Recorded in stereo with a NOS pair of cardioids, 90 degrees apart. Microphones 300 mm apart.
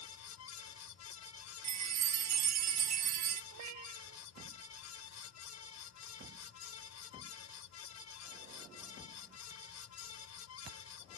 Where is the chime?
60° right.